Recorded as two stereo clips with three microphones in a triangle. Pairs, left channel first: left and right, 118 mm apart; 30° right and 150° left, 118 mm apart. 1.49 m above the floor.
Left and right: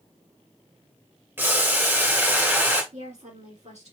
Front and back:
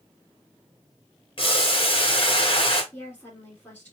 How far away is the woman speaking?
About 4 m.